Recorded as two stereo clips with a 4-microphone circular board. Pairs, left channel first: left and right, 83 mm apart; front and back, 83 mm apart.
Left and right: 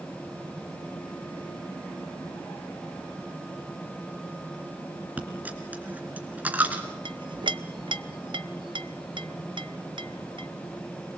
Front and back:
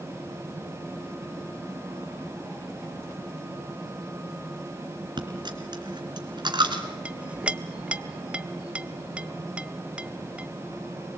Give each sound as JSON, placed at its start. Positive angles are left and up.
{"t": 5.2, "sound": "a dropped coin", "azimuth_deg": -160, "distance_m": 2.5}
{"t": 7.0, "sound": "a clink", "azimuth_deg": -105, "distance_m": 0.7}